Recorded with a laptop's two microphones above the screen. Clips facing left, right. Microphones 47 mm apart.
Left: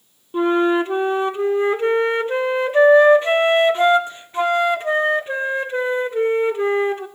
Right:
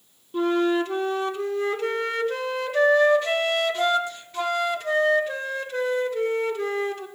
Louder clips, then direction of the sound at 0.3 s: Left 5 dB; 30° left (ahead or behind).